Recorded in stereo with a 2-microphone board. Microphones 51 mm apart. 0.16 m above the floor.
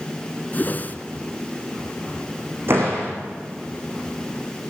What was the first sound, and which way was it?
A whoosh, 35° left (ahead or behind).